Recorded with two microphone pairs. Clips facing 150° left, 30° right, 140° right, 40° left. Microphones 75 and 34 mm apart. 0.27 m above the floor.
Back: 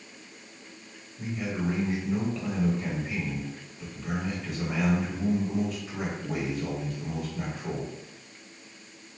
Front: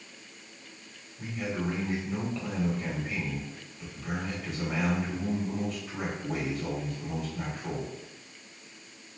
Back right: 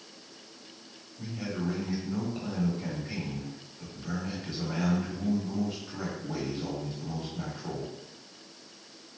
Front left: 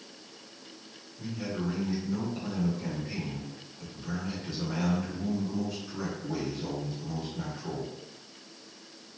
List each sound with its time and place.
1.2 s a man speaking: 135° right, 1.5 m